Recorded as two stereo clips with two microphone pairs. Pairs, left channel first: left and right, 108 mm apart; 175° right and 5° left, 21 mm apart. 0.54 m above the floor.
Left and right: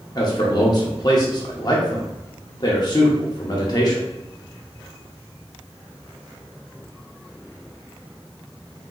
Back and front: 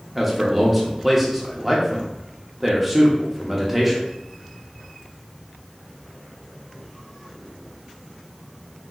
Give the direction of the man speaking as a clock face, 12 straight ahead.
9 o'clock.